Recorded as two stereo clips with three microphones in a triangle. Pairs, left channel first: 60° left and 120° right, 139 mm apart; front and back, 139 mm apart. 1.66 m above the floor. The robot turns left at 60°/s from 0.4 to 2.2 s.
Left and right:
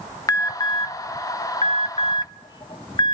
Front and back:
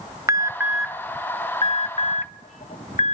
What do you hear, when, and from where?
0.3 s an alarm: 115° left, 0.5 m; by 3.1 s 10° left, 0.5 m